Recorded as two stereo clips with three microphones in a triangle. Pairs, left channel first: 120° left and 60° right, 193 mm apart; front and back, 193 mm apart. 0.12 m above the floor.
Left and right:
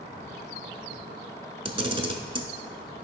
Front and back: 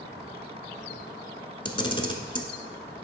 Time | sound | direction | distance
1.6 | a camera shutter | 35° right | 0.7 m